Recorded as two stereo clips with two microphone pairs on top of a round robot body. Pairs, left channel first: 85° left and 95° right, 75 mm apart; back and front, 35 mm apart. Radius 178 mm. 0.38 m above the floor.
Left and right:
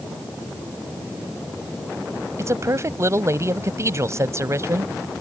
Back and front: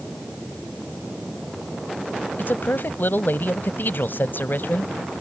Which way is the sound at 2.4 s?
150° right.